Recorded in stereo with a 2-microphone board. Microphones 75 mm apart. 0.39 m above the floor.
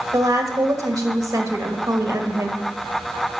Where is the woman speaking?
50° right (ahead or behind), 1.6 m.